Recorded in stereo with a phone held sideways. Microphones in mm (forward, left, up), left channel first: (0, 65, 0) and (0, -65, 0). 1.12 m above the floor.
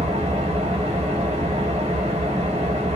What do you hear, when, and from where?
0.0 s an engine running: 55° right (ahead or behind), 0.8 m